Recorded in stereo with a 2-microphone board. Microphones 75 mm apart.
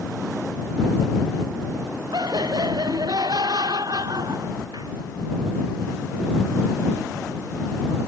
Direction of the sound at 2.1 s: 65° right (ahead or behind).